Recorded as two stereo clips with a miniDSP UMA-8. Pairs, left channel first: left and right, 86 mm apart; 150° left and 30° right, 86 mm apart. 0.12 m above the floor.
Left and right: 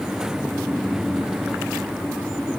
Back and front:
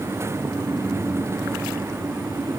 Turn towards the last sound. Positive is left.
No sound to turn to.